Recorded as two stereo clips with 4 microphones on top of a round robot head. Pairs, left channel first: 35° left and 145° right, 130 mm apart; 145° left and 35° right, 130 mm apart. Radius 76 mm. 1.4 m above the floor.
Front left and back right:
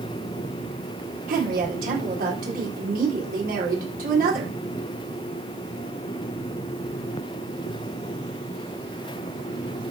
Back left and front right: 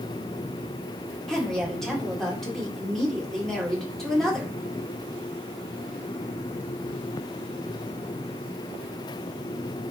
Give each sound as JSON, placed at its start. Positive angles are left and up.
{"t": 1.3, "sound": "a woman speaking", "azimuth_deg": -125, "distance_m": 4.0}